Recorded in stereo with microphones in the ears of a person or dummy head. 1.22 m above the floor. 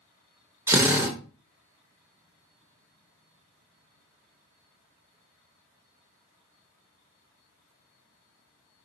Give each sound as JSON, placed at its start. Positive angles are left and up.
{"t": 0.7, "sound": "a drill", "side_deg": -10, "distance_m": 0.6}